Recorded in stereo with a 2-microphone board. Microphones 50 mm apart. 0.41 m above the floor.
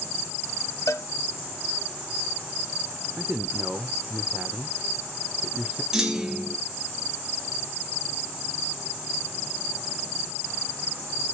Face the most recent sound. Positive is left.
turn(degrees=-10)  # may be behind; listen again after turning